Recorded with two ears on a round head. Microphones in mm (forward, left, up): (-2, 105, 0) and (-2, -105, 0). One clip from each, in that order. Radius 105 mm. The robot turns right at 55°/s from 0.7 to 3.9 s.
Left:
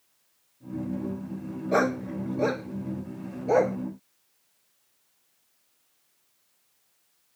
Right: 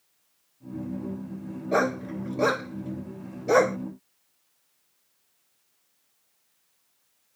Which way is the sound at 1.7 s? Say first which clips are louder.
Even; 5° right (ahead or behind).